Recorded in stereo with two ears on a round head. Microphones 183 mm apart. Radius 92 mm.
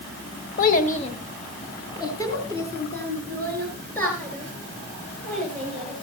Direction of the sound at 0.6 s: 45° left (ahead or behind).